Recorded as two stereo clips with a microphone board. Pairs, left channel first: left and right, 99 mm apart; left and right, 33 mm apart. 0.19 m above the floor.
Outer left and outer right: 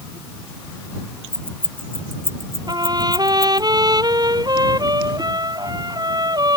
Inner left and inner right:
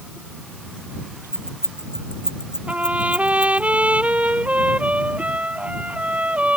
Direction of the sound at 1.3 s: 20° right (ahead or behind).